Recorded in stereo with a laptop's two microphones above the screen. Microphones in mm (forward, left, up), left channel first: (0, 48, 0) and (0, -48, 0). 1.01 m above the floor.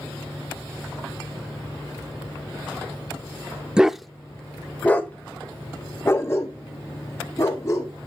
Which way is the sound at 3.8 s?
10° right (ahead or behind).